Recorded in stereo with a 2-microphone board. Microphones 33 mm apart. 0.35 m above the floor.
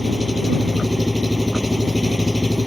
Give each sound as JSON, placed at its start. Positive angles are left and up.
{"t": 0.0, "sound": "an engine running", "side_deg": -25}